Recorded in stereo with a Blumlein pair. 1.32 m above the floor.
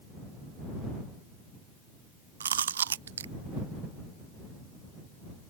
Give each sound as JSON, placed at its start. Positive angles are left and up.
{"t": 2.4, "sound": "chewing", "azimuth_deg": -65}